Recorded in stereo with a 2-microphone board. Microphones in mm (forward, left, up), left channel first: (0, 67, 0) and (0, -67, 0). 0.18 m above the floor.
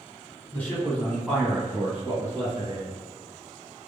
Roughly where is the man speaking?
Centre.